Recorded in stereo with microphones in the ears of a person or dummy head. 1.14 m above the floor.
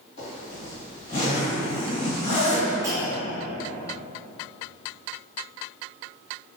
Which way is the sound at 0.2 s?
45° left (ahead or behind).